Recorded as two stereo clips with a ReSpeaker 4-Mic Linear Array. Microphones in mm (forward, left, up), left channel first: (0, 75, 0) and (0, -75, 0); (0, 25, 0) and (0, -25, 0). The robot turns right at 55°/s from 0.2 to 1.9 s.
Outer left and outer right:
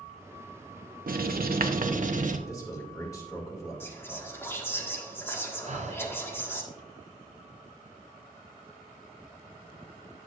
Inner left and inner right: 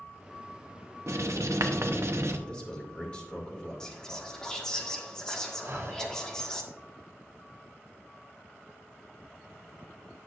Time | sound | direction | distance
1.1 | writing | 110° right | 0.8 m
2.5 | a man speaking | 20° left (ahead or behind) | 2.5 m
3.8 | whispering | 15° left (ahead or behind) | 1.5 m
5.6 | breathing | 50° right (ahead or behind) | 0.7 m